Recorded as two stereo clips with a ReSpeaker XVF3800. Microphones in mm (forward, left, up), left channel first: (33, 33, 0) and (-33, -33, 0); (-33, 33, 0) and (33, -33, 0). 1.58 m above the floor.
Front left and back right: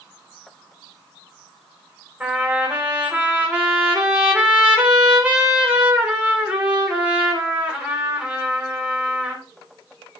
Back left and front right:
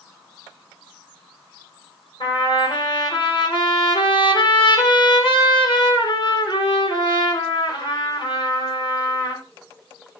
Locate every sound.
2.2 s a trumpet: 150° left, 2.5 m